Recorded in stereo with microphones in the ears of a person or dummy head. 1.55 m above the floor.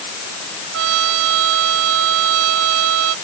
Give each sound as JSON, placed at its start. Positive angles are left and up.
{"t": 0.7, "sound": "a trumpet", "side_deg": -70}